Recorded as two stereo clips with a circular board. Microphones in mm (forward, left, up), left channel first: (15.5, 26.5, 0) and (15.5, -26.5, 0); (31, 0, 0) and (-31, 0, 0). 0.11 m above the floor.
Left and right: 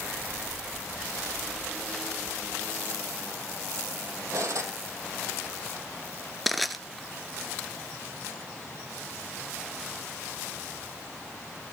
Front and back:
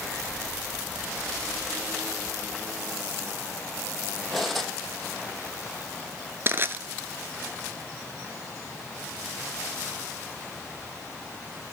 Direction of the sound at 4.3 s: 85° right.